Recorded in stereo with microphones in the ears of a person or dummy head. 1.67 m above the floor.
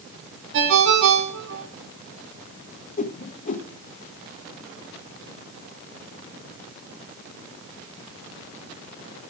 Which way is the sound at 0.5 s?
60° right (ahead or behind).